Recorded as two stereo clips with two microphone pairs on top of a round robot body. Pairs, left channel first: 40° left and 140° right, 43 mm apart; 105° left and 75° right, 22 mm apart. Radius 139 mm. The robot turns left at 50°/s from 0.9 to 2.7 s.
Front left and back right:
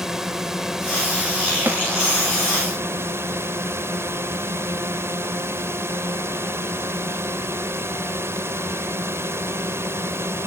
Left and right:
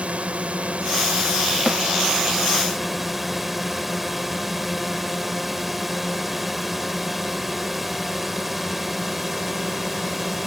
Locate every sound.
0.0 s a drone: 65° right; by 10.5 s 155° right
1.7 s a snare drum: 150° right; by 1.8 s 155° right